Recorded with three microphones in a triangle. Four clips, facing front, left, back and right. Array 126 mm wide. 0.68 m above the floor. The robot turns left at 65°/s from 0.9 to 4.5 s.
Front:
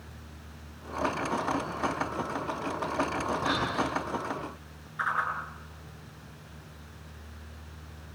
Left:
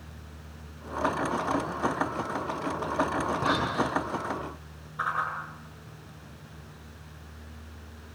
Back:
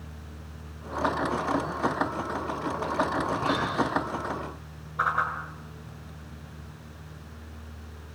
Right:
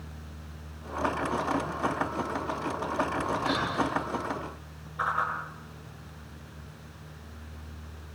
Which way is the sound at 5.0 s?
Straight behind.